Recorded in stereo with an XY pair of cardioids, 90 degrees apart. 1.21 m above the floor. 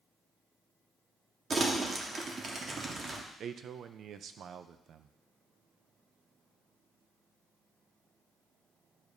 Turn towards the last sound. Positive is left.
turn(degrees=-65)